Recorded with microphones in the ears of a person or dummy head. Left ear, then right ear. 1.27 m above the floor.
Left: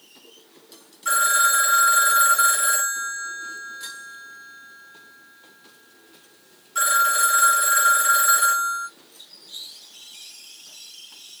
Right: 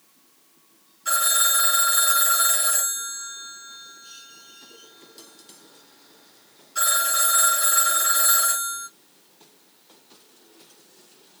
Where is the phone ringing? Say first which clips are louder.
Left 4 dB; 15° left (ahead or behind), 2 m.